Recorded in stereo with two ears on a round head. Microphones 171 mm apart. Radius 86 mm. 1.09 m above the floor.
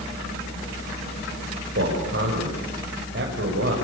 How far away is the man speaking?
About 6 m.